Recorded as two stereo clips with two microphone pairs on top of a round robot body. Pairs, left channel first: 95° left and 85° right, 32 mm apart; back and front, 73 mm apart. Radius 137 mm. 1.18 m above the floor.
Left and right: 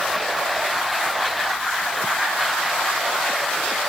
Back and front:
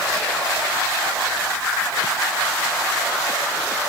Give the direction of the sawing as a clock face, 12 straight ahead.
I don't hear sawing.